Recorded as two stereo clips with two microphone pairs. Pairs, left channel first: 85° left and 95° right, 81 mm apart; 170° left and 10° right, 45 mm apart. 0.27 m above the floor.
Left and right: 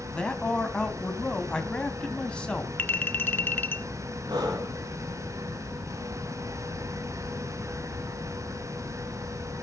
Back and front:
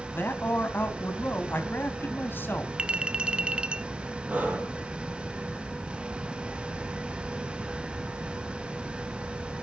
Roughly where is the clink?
Ahead left.